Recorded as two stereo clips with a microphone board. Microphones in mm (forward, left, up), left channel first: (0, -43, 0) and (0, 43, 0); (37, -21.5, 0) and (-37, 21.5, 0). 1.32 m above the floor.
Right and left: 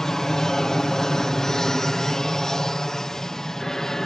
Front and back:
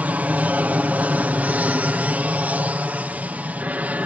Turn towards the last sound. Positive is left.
turn(degrees=-165)